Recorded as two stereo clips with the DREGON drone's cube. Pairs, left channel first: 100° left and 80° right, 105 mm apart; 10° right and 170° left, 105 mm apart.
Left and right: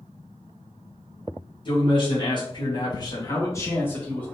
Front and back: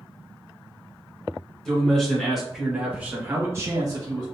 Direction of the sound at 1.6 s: 75° left.